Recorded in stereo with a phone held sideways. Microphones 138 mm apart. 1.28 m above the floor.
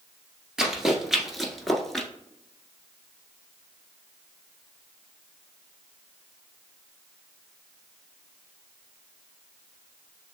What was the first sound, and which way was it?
Running footsteps, 5° right (ahead or behind).